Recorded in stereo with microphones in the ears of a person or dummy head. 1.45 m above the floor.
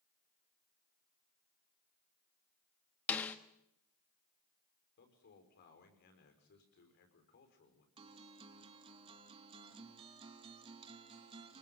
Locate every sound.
3.1 s a snare drum: 15° left (ahead or behind), 1.1 m
5.0 s a man speaking: 55° left (ahead or behind), 6 m
8.0 s a guitar: 30° right (ahead or behind), 3 m